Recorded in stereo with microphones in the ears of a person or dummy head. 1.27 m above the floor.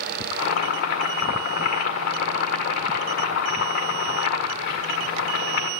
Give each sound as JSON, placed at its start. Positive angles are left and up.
{"t": 0.3, "sound": "boiling", "side_deg": 60, "distance_m": 1.7}